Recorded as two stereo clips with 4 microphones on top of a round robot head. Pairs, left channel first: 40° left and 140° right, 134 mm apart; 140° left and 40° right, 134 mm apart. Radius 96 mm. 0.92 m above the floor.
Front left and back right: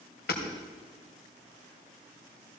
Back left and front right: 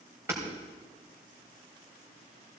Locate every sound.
0.3 s hammering: 35° left, 2.5 m